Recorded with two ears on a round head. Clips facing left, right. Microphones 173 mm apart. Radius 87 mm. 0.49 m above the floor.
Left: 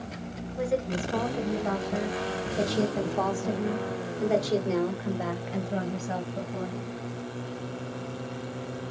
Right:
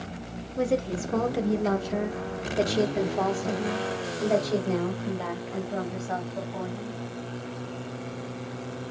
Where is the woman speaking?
45° right (ahead or behind), 1.2 m; by 7.0 s 20° left (ahead or behind), 2.5 m.